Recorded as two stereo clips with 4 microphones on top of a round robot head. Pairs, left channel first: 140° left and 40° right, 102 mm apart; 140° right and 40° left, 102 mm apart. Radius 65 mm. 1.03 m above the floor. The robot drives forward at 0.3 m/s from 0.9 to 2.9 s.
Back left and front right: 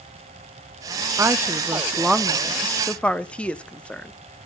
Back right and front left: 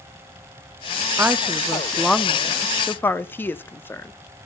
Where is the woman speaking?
10° right, 0.7 m; by 4.1 s 165° right, 0.6 m.